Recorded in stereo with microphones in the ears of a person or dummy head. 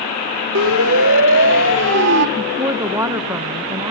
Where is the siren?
75° right (ahead or behind), 3 m; by 2.3 s 60° right (ahead or behind), 3 m.